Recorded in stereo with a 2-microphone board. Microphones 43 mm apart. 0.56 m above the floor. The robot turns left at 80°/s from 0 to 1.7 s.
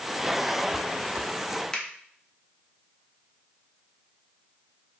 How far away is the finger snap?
About 0.5 m.